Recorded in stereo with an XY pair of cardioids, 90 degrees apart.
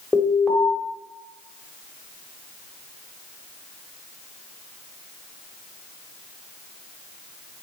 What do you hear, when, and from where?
0.1 s an alarm: 20° left, 1.1 m